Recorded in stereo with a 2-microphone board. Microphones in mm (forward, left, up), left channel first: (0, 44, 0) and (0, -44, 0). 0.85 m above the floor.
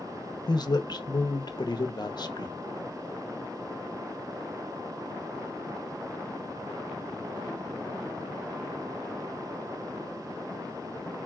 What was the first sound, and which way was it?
A man speaking, 50° left (ahead or behind).